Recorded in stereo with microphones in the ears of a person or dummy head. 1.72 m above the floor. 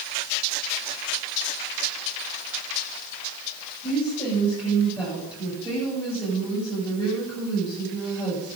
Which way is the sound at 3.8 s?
15° left (ahead or behind).